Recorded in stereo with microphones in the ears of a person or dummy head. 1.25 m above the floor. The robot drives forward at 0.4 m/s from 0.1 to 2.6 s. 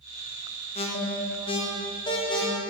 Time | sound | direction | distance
0.8 | an alarm | 25° left (ahead or behind) | 0.8 m